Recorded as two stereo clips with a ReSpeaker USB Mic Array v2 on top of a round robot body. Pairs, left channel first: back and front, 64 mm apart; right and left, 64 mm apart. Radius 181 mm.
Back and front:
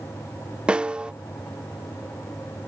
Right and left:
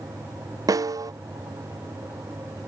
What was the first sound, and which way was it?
A snare drum, 75° left.